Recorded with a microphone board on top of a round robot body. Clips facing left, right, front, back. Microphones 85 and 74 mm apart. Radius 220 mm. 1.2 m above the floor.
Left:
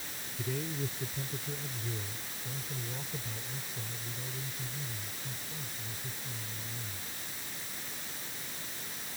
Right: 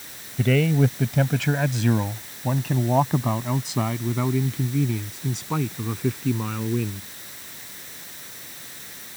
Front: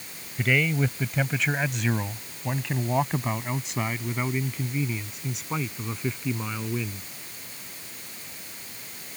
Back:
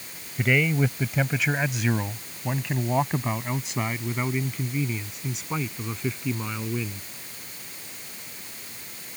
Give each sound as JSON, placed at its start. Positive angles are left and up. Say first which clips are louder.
{"t": 0.4, "sound": "a man speaking", "louder": "right 17 dB, back 1 dB", "azimuth_deg": -95}